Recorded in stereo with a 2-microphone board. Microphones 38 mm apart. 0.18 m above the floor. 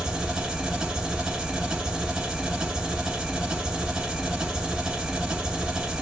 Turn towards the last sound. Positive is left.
turn(degrees=-15)  # may be behind; listen again after turning